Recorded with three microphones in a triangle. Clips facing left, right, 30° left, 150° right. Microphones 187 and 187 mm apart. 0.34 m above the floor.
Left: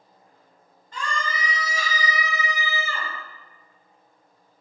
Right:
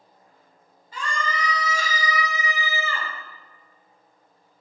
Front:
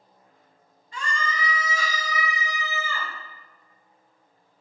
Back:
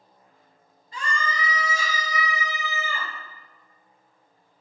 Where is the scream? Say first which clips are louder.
Right 1 dB, back 1 dB; 170° right, 1.3 m; by 3.1 s 145° left, 2.5 m.